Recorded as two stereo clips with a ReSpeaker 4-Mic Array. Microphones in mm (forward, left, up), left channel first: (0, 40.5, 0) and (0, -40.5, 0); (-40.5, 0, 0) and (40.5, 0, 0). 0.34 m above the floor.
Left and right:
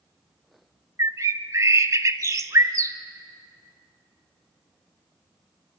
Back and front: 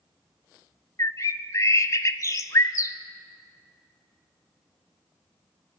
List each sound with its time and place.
1.0 s a bird: 135° right, 0.8 m